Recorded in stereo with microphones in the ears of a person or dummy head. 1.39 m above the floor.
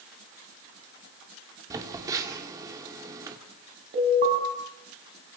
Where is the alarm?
40° right (ahead or behind), 6.5 m.